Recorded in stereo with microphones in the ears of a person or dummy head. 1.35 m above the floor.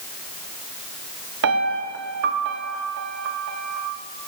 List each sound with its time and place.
1.4 s a piano: 60° right (ahead or behind), 0.9 m